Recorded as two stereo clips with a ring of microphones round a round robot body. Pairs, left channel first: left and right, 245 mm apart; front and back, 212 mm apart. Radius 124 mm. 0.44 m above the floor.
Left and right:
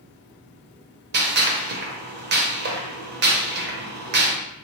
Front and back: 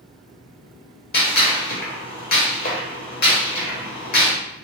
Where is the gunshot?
45° right, 0.9 m.